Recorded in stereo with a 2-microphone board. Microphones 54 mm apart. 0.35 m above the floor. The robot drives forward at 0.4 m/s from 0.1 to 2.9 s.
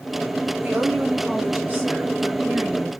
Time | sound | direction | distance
0.6 | a woman speaking | 35° right (ahead or behind) | 1.4 m